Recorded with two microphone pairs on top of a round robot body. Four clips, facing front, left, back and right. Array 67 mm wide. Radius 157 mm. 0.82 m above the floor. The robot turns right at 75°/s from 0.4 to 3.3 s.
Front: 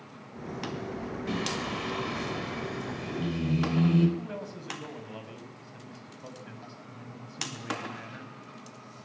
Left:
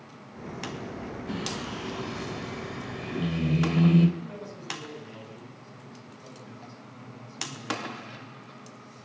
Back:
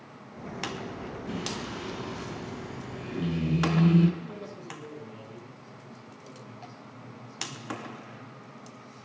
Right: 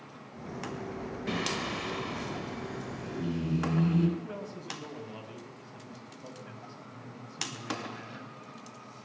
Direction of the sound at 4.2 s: 15° right.